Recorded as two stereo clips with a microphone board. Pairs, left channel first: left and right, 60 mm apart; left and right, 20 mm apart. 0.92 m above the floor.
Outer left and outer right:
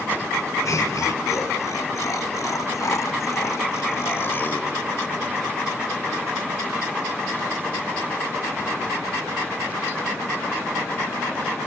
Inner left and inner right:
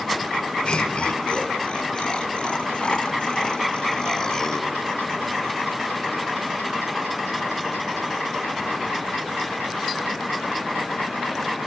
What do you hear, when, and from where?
0.7 s laughter: 65° left (ahead or behind), 4.5 m; by 4.7 s 25° left (ahead or behind), 1.8 m